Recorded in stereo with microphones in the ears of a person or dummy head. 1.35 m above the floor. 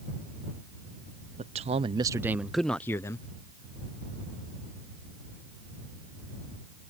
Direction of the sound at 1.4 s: 30° right (ahead or behind).